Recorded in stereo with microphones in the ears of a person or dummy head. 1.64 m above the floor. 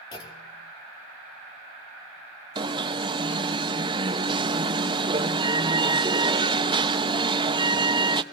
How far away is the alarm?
About 0.9 m.